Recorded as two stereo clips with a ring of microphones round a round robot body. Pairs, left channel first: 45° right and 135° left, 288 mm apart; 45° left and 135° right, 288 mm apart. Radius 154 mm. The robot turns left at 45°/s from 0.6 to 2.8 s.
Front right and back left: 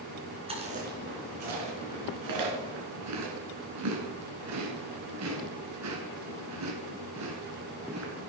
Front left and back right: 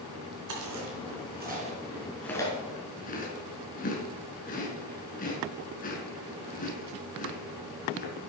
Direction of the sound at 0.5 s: 155° right.